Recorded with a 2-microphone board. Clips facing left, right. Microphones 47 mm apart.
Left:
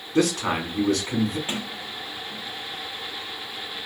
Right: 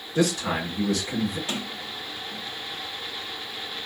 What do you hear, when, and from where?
0.1 s a man speaking: 75° left (ahead or behind), 2.5 m
1.5 s a sliding door: 25° left (ahead or behind), 1.1 m